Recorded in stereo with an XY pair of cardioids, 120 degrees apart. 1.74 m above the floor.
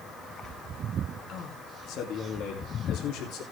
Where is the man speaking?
60° left, 3 m; by 3.4 s 80° left, 4 m.